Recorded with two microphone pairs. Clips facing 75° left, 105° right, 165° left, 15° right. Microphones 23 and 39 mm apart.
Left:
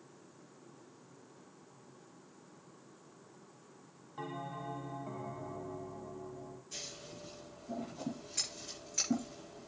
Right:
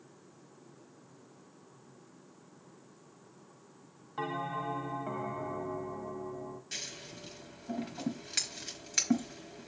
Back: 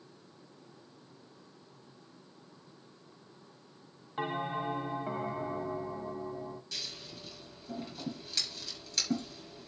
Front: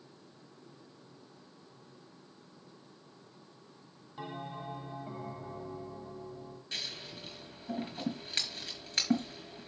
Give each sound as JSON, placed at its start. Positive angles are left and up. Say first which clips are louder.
{"t": 4.2, "sound": "a bell", "louder": "right 7 dB, back 8 dB", "azimuth_deg": -155, "distance_m": 0.7}
{"t": 6.7, "sound": "scissors", "louder": "right 3 dB, front 2 dB", "azimuth_deg": -75, "distance_m": 4.5}